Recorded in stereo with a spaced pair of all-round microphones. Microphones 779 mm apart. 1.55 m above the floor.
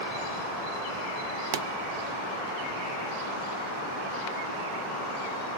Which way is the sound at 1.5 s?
90° right.